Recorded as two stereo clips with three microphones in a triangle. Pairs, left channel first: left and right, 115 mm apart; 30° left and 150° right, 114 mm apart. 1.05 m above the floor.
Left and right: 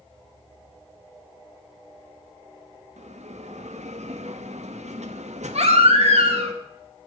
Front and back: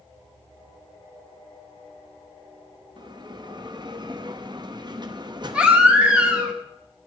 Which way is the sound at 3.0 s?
95° right.